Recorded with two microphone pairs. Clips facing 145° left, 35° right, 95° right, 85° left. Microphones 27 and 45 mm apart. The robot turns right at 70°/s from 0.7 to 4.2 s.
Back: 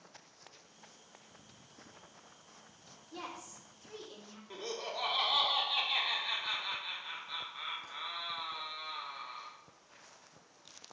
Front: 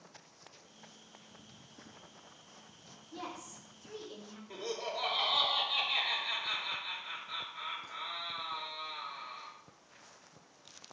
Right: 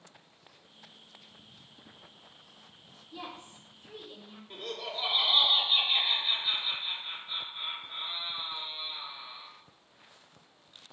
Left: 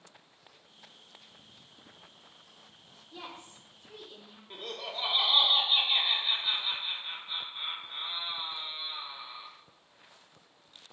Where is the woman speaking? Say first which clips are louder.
Front 1 dB, right 2 dB; 165° left, 1.0 m; by 4.4 s 120° right, 1.0 m.